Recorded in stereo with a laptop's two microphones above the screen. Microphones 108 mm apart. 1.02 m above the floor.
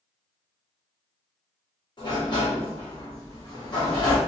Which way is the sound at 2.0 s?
45° left (ahead or behind).